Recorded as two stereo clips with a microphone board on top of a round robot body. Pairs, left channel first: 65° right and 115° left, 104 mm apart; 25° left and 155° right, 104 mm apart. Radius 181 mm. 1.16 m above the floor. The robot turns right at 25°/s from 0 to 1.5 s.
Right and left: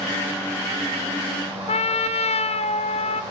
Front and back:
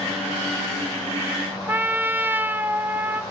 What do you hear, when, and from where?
1.7 s a trumpet: 85° right, 1.0 m